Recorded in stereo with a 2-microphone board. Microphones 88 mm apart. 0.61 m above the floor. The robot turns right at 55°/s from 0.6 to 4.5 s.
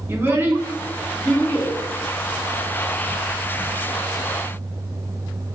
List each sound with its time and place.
0.1 s a child speaking: 25° right (ahead or behind), 0.8 m; by 1.7 s 25° left (ahead or behind), 0.8 m